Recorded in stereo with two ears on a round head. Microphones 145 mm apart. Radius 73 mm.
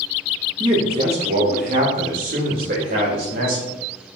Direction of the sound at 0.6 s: 30° right (ahead or behind).